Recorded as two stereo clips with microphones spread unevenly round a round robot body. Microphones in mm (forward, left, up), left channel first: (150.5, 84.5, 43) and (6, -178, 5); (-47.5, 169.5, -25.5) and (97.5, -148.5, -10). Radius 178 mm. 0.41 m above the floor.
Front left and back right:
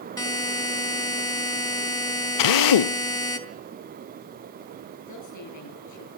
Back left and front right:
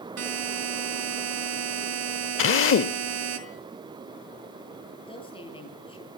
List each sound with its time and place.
0.2 s a buzzer: 15° right, 3.5 m
2.4 s a drill: 65° left, 0.6 m
5.1 s a woman speaking: 40° left, 9.5 m